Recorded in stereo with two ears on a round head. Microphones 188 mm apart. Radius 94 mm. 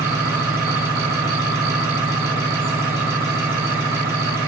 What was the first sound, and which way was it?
An engine running, 15° right (ahead or behind).